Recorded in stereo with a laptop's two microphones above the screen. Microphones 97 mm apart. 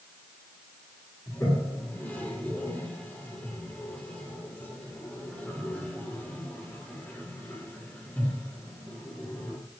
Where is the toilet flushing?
20° left (ahead or behind), 1.9 m.